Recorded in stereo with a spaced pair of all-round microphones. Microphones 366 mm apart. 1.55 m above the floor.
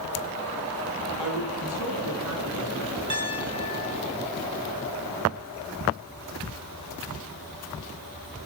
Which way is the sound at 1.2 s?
70° right (ahead or behind).